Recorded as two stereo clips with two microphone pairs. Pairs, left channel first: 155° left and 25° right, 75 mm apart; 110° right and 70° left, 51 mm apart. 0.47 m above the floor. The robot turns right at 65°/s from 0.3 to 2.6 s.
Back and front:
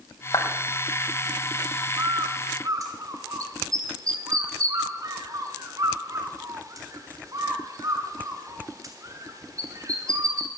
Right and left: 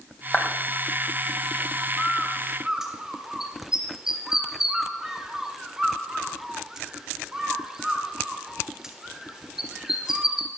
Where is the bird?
50° right, 1.4 m; by 10.5 s 10° right, 1.4 m.